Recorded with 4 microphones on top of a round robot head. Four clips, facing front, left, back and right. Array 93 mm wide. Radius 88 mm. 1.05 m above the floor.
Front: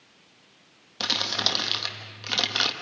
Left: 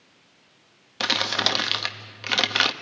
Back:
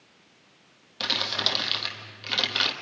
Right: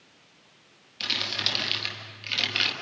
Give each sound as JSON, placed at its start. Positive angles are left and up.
{"t": 1.0, "sound": "crumpling", "azimuth_deg": 80, "distance_m": 1.4}